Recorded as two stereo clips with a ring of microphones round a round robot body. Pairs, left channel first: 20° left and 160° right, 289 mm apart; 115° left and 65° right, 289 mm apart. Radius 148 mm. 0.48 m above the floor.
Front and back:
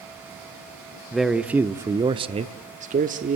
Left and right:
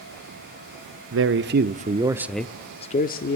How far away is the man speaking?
About 1.2 m.